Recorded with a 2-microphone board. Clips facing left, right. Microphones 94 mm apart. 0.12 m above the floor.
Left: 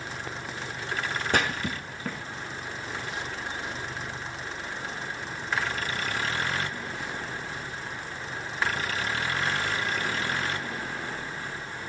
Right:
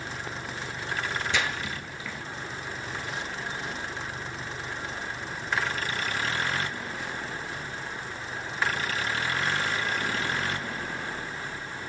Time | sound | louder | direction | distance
1.3 | a splash | left 3 dB | 50° left (ahead or behind) | 0.8 m